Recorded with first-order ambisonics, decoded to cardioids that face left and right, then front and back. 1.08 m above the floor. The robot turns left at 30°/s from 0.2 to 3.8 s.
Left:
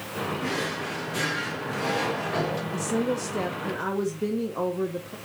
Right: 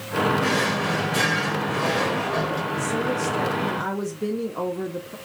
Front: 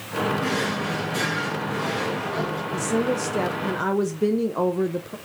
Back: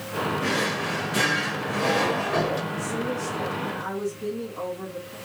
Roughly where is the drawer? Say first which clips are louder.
Right 7 dB, even; behind right.